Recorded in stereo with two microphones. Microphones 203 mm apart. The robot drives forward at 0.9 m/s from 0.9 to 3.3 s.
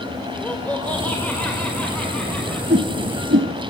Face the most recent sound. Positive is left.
turn(degrees=-70)  # may be behind; listen again after turning